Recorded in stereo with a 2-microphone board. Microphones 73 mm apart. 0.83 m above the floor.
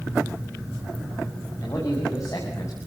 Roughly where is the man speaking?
Left.